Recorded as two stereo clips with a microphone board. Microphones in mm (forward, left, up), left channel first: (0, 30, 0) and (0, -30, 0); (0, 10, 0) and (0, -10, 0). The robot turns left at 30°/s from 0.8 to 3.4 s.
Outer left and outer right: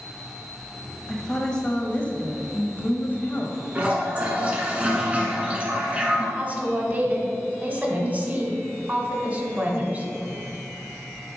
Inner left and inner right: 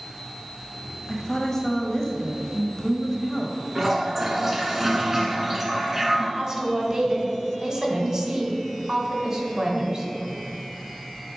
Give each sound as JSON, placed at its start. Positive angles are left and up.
{"t": 1.1, "sound": "a woman speaking", "azimuth_deg": 165, "distance_m": 1.2}
{"t": 3.8, "sound": "a toilet flushing", "side_deg": -20, "distance_m": 1.3}
{"t": 6.4, "sound": "a woman speaking", "side_deg": -30, "distance_m": 1.5}